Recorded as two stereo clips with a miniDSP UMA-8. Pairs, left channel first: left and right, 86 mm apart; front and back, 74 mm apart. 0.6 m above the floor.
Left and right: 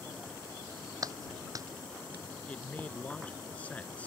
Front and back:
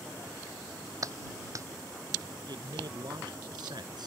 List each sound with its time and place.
1.0 s a clap: 135° right
2.5 s a man speaking: 165° left